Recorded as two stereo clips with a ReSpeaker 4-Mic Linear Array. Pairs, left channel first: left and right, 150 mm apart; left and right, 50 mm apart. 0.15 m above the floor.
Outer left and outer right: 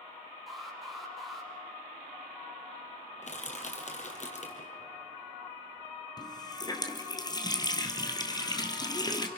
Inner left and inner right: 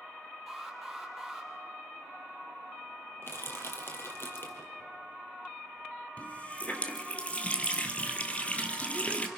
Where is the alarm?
Centre (ahead or behind), 6.5 m.